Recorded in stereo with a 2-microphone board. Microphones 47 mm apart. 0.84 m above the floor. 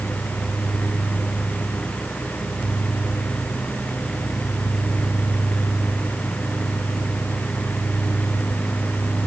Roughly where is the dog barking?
I don't hear a dog barking.